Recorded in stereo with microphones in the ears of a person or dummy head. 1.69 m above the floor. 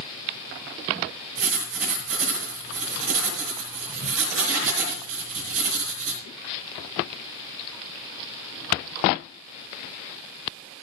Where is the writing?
75° right (ahead or behind), 5 m.